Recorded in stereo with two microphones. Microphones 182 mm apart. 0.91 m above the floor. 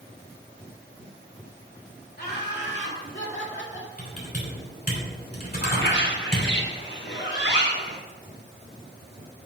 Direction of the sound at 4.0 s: 55° left (ahead or behind).